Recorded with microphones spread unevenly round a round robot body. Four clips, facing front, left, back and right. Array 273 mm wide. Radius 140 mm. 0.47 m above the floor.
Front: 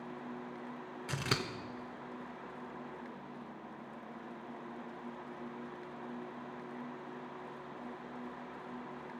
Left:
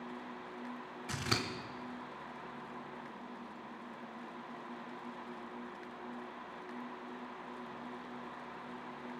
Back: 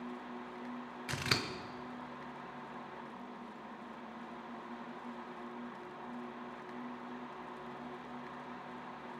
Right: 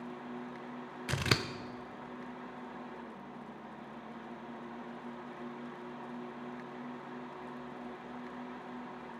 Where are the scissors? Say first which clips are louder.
Right 4 dB, front 1 dB; 85° right, 1.0 m.